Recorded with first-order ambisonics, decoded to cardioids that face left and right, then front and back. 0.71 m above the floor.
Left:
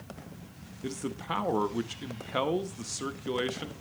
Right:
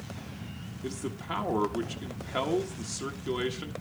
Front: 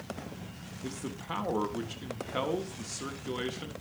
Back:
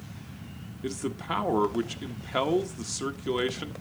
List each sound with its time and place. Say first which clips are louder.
0.8 s a man speaking: left 1 dB, back 7 dB; 160° left, 0.8 m